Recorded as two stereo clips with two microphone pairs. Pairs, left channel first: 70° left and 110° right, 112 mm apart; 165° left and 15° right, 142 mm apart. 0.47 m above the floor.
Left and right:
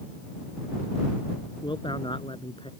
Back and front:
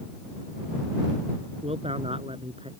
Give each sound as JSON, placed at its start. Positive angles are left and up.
{"t": 1.6, "sound": "a man speaking", "azimuth_deg": 30}